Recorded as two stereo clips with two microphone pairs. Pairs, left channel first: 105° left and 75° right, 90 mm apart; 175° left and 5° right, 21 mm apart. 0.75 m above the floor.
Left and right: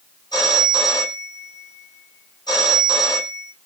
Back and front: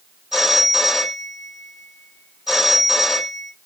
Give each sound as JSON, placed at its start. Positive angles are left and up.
{"t": 0.3, "sound": "a phone ringing", "azimuth_deg": 70, "distance_m": 2.0}